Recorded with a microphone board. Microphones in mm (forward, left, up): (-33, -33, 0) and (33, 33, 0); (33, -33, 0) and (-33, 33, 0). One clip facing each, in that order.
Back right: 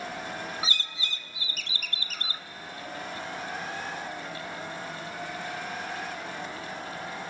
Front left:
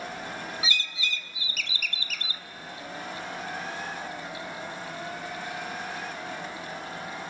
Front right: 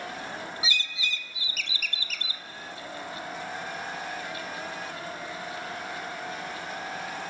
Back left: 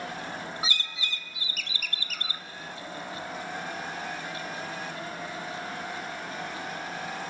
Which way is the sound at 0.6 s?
175° left.